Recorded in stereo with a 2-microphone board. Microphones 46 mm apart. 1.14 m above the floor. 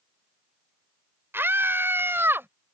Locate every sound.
1.3 s a scream: 55° right (ahead or behind)